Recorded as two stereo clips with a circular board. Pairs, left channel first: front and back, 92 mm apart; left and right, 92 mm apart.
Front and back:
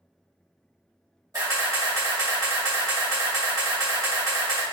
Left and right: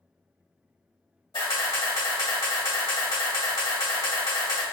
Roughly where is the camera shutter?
Behind left.